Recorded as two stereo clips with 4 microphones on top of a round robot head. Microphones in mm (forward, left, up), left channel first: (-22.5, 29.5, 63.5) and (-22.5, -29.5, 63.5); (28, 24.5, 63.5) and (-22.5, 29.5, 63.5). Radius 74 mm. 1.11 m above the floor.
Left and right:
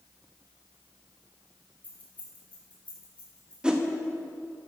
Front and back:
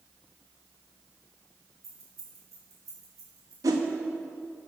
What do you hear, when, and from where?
1.8 s keys jangling: 150° left, 2.5 m; by 3.5 s 165° left, 3.5 m
3.6 s a whoosh: 165° right, 0.8 m